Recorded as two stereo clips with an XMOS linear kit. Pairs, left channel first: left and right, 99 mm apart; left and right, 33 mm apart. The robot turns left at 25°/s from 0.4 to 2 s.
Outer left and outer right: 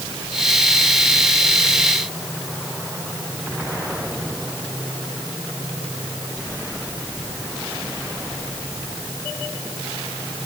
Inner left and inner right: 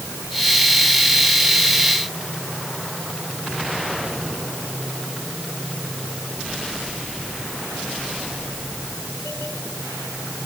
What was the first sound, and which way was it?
Only background noise.